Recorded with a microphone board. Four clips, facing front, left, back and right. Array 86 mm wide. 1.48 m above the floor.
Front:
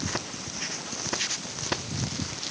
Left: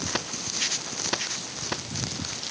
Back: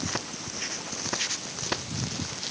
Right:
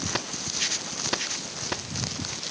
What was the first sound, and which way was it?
Only background noise.